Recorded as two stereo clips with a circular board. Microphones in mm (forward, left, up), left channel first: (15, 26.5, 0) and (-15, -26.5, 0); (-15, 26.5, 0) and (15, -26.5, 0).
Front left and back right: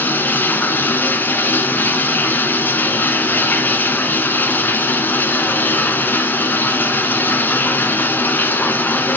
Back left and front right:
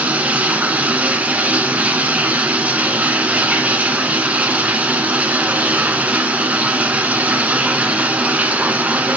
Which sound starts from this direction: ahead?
Running water, at 0.0 s.